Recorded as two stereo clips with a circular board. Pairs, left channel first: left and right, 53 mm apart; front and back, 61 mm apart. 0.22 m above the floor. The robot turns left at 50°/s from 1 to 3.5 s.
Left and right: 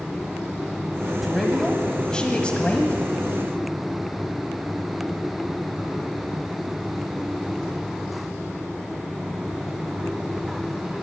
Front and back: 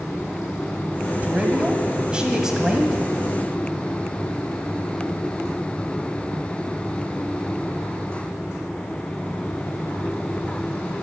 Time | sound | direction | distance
1.2 | a man speaking | 175° right | 1.5 m